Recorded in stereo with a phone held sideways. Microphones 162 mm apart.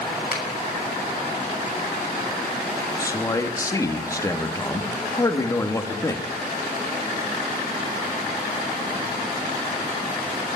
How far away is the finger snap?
About 6.5 m.